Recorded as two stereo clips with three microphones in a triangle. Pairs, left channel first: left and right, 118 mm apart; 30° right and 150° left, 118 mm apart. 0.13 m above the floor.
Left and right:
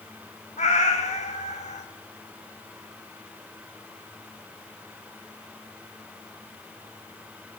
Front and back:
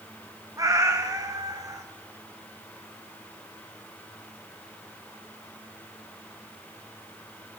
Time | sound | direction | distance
0.6 | a cat meowing | 90° left | 1.8 m